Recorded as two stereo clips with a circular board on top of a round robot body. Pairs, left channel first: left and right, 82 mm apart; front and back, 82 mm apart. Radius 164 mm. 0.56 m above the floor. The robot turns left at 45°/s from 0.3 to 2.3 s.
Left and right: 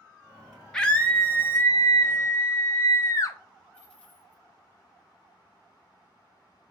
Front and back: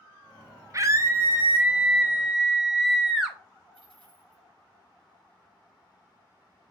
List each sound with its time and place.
0.7 s a scream: 165° left, 0.7 m; by 3.4 s 95° left, 0.7 m
3.7 s a dropped coin: 160° left, 1.9 m